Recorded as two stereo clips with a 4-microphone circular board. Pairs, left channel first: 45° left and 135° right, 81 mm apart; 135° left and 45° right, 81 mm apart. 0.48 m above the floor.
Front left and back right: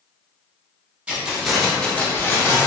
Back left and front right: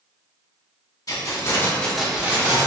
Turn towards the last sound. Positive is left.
turn(degrees=-5)